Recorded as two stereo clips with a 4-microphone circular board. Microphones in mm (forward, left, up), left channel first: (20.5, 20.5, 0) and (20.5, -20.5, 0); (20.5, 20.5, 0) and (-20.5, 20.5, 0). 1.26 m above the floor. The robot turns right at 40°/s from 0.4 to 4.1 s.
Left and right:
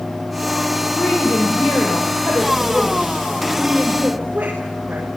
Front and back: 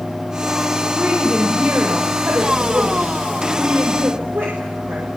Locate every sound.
0.9 s a woman speaking: 85° left, 5.5 m; by 5.1 s 150° right, 5.5 m